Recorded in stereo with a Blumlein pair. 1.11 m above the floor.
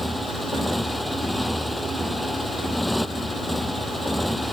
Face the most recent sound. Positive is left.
turn(degrees=0)